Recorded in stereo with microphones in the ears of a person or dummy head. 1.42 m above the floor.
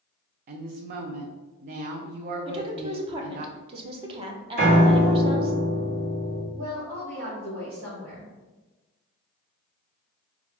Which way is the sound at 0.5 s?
40° right (ahead or behind).